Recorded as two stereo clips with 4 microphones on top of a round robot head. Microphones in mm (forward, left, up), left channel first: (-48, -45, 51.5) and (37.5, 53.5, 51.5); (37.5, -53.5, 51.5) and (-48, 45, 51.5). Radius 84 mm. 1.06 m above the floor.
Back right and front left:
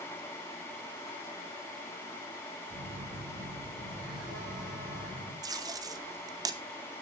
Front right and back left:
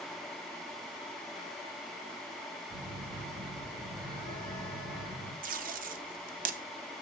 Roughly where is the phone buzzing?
Left.